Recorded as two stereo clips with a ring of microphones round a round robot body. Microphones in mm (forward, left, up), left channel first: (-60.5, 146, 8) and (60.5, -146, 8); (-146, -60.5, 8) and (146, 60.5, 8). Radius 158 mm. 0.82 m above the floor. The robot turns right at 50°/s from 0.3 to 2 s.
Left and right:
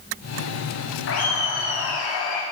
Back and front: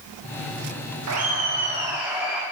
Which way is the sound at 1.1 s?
60° left.